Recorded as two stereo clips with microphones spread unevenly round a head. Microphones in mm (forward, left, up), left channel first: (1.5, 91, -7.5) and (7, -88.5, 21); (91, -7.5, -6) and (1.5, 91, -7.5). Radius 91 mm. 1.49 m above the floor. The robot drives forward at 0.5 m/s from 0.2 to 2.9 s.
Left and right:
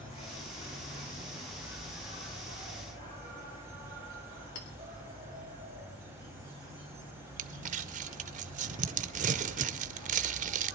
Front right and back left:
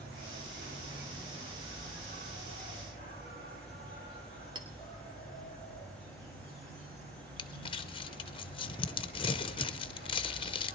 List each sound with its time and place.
0.0 s an insect: 155° left, 3.5 m; by 10.8 s 160° left, 4.5 m
4.5 s a clink: 80° left, 2 m
7.4 s crumpling: 85° right, 0.5 m